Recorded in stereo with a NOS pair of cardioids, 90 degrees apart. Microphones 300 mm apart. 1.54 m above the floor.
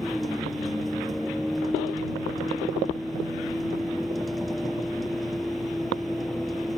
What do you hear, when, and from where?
0.0 s a vehicle: straight ahead